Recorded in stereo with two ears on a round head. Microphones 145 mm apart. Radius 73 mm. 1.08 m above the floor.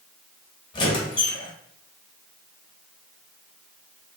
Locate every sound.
0.7 s a squeak: 30° left (ahead or behind), 1.1 m